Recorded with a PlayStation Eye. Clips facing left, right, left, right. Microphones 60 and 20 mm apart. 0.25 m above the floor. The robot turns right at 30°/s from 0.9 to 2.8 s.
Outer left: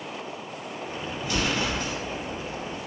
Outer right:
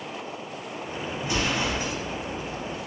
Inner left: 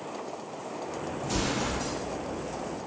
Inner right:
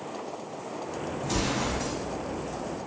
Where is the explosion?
25° right (ahead or behind), 0.8 m; by 2.0 s 10° right (ahead or behind), 0.8 m.